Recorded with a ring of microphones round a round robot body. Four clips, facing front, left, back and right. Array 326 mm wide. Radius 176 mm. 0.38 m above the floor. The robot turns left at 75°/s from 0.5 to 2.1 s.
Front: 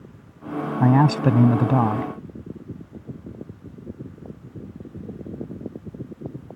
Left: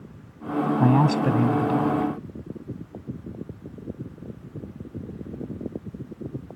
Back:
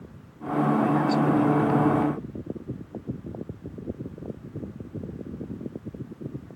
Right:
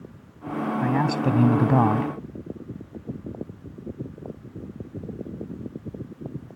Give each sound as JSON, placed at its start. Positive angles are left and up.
{"t": 0.8, "sound": "a man speaking", "azimuth_deg": 25}